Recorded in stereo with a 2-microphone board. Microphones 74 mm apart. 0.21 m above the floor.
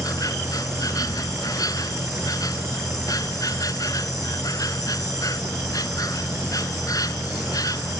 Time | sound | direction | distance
0.0 | an insect | 55° left (ahead or behind) | ?